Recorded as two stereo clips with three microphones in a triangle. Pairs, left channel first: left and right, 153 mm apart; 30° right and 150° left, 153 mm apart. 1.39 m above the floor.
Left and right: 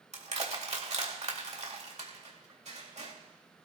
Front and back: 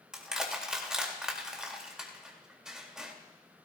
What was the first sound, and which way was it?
Crushing, 125° right.